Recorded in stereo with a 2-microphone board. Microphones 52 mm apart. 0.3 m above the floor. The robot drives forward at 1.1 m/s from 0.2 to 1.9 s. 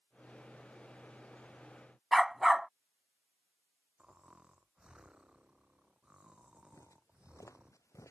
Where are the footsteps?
80° left; by 8.1 s 75° left (ahead or behind).